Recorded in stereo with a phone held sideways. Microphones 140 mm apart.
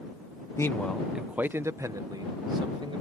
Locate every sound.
0.6 s a man speaking: 20° left (ahead or behind); by 3.0 s 35° right (ahead or behind)